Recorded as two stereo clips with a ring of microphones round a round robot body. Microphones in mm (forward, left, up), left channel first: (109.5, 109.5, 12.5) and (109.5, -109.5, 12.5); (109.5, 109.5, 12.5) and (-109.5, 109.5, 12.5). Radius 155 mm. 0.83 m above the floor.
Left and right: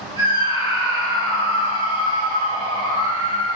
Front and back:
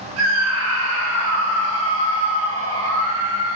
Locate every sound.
0.2 s a scream: 165° right, 6 m